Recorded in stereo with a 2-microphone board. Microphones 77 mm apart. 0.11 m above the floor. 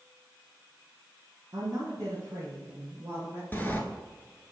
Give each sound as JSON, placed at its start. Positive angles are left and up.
{"t": 1.5, "sound": "a woman speaking", "side_deg": -40, "distance_m": 2.5}
{"t": 3.5, "sound": "a sliding door", "side_deg": 25, "distance_m": 1.0}